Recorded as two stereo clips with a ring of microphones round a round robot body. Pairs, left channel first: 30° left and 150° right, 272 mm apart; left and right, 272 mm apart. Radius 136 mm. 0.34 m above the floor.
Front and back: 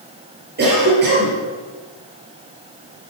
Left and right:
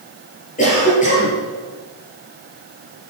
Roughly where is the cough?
Behind left.